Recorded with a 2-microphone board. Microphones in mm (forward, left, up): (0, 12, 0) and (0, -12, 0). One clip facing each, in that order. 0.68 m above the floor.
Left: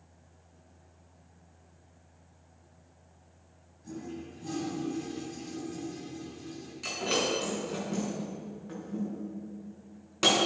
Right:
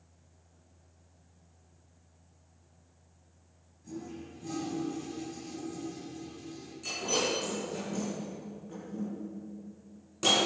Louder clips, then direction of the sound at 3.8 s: Left 2 dB; 15° left (ahead or behind).